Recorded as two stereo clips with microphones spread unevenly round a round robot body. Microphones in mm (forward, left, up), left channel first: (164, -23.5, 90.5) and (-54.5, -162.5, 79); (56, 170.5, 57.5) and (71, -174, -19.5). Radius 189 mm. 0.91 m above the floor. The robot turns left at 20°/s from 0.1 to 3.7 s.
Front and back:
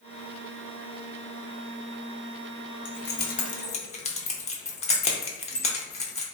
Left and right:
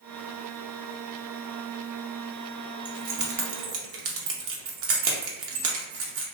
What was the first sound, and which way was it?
Keys jangling, 20° right.